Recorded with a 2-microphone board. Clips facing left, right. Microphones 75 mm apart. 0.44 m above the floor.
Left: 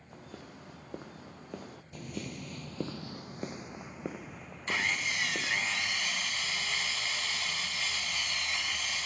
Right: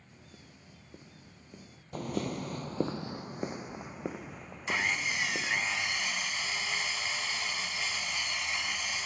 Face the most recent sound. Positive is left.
turn(degrees=-10)  # may be behind; listen again after turning